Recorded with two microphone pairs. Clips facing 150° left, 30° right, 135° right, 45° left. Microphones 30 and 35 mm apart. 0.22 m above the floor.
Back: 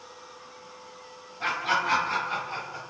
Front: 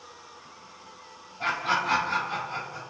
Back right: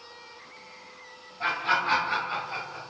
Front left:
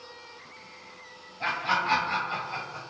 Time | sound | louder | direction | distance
1.4 | laughter | even, back right 1 dB | 105° right | 1.7 m